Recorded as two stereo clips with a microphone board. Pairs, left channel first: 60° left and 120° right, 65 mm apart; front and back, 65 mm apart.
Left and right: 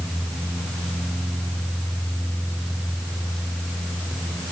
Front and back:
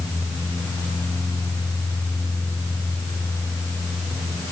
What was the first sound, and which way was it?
Only background noise.